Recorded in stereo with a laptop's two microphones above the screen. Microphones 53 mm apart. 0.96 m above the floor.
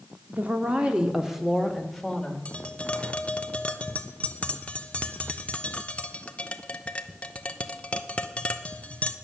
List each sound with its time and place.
0.3 s a woman speaking: 35° right (ahead or behind), 1.8 m; by 2.4 s 10° left (ahead or behind), 3 m
2.5 s tapping: 25° left (ahead or behind), 0.9 m